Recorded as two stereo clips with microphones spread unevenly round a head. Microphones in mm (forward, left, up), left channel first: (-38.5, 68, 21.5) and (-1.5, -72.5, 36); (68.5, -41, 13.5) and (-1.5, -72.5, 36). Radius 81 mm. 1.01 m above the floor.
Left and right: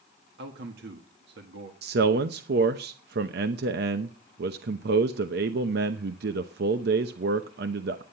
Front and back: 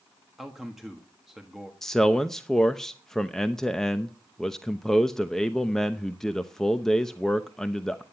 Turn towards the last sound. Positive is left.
turn(degrees=-55)